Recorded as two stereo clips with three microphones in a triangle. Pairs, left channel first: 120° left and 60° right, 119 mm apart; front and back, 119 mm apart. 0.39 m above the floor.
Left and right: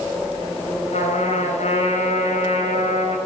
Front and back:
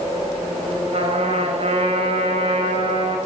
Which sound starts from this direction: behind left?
A trumpet, at 0.9 s.